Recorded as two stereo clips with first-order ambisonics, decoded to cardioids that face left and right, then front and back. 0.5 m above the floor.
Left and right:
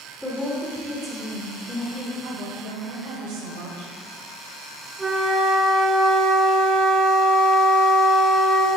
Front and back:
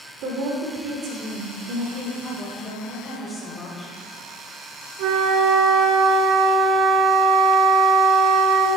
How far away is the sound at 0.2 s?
About 1.5 m.